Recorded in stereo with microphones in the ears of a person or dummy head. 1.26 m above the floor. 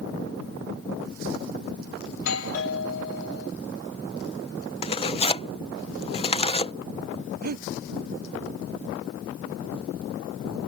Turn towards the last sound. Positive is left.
turn(degrees=-50)  # may be behind; listen again after turning